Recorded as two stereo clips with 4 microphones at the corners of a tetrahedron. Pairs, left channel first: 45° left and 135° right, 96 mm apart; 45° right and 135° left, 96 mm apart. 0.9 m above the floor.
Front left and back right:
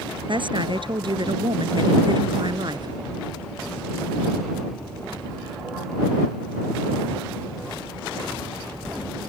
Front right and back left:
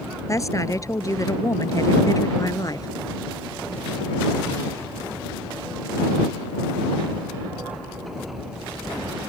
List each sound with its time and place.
0.3 s a woman speaking: 100° right; by 2.9 s 95° right